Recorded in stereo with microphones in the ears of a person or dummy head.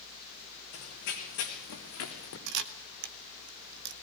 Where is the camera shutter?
65° right (ahead or behind), 1.4 m.